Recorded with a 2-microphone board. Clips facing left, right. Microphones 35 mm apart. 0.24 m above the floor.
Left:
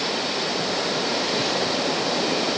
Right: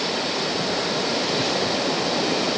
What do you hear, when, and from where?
Only background noise.